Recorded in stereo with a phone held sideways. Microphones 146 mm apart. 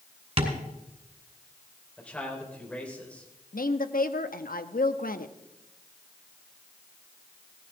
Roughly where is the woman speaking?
Left.